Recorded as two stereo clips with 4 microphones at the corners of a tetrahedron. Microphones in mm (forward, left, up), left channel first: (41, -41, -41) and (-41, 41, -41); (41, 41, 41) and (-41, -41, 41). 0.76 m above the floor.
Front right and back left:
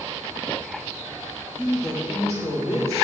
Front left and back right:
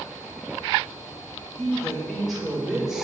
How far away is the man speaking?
About 3 m.